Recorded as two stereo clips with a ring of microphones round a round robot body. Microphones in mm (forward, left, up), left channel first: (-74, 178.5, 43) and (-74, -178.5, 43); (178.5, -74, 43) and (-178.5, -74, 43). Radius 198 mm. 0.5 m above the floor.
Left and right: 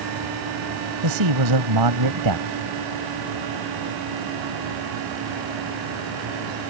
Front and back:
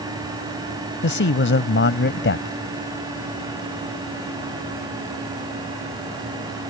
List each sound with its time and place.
1.0 s a man speaking: 55° right